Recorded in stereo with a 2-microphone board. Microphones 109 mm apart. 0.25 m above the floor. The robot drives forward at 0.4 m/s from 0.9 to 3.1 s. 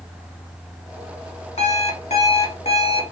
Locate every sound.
1.6 s an alarm clock: 70° left (ahead or behind), 0.9 m; by 3.1 s 55° left (ahead or behind), 1.0 m